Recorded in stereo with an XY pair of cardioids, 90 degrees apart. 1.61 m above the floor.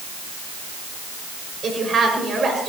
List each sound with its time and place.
1.6 s a woman speaking: 45° right, 6.5 m